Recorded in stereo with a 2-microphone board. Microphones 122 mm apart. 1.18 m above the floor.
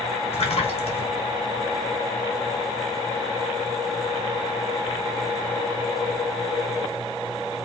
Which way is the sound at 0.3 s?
60° left (ahead or behind).